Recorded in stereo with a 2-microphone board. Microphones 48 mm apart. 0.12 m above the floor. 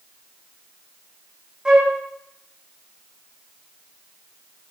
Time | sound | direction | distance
1.6 | a flute | 15° right (ahead or behind) | 4.5 m